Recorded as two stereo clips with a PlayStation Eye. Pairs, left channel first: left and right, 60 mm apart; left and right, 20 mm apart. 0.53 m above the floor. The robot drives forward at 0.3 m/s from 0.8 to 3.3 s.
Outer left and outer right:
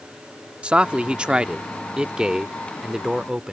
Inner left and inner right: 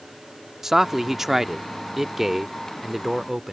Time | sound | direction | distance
0.6 | a man speaking | 20° right (ahead or behind) | ?